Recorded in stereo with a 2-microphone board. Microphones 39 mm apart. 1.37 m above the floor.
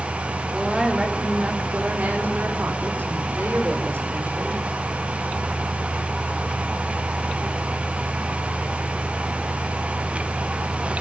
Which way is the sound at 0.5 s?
15° right (ahead or behind).